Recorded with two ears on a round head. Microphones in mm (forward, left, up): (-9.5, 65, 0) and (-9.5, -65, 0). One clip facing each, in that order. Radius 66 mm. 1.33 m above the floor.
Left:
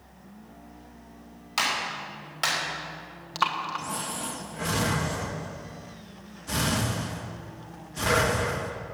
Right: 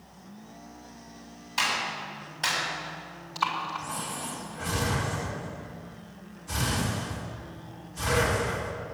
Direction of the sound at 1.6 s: 80° left.